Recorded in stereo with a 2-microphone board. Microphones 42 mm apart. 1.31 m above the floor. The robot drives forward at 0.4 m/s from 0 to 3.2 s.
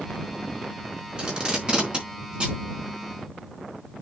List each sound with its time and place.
1.2 s tape being pulled: 20° right (ahead or behind), 4.5 m; by 2.6 s 25° right (ahead or behind), 4 m